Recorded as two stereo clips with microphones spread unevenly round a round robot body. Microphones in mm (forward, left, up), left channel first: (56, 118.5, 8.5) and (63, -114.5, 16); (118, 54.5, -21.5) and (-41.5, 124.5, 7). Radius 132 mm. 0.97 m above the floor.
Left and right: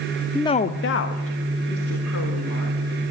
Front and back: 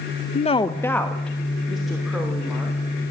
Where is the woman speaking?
5° left, 0.5 m; by 2.8 s 70° left, 3.5 m.